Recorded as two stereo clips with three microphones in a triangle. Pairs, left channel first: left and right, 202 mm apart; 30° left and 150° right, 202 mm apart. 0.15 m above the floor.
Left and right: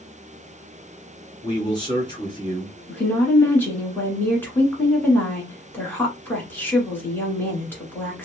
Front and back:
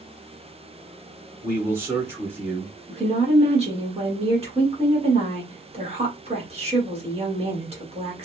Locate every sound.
1.4 s a man speaking: 140° left, 1.8 m
2.9 s a woman speaking: 165° left, 1.5 m